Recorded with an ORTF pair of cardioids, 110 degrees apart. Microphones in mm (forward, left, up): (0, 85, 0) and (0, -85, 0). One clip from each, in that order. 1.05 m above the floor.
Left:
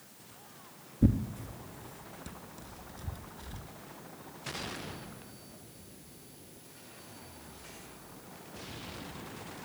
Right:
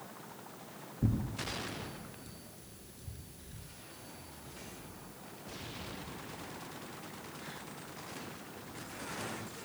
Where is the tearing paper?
45° left, 3 m.